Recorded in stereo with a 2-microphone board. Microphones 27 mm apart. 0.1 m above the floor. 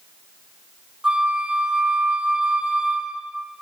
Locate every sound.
1.0 s a flute: 40° right (ahead or behind), 3.5 m